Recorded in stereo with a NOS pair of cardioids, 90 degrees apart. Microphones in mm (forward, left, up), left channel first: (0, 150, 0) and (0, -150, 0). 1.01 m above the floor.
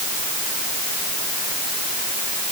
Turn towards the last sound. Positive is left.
No sound to turn to.